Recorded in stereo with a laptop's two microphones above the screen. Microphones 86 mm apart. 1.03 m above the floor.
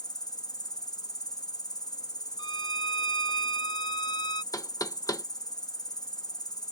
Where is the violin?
65° left (ahead or behind).